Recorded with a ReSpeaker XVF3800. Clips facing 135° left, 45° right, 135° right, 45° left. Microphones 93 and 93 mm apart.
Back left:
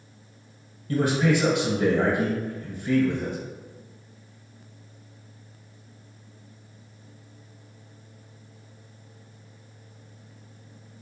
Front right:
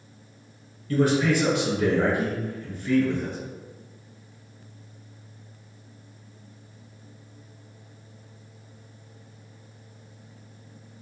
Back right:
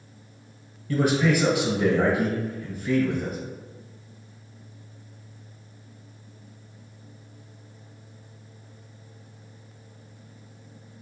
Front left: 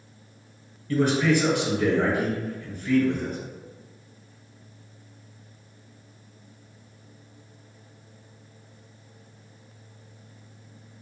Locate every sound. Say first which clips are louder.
0.9 s a man speaking: front right 1 dB, even; 155° left, 1.3 m